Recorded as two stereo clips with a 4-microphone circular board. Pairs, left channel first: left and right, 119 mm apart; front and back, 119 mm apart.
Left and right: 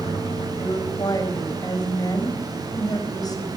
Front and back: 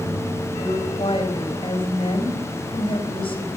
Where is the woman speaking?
35° left, 4.5 m.